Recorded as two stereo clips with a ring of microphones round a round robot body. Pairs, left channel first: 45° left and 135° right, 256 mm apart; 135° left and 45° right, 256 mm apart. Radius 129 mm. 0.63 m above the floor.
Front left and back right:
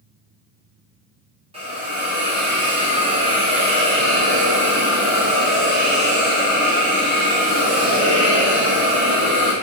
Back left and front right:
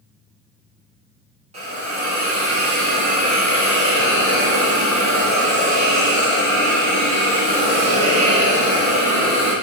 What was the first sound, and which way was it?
A hiss, 90° right.